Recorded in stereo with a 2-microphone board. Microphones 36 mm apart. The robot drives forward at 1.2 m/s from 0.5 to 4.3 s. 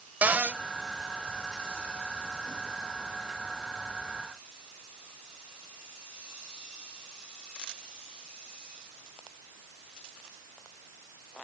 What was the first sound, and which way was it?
A cupboard door, 50° right (ahead or behind).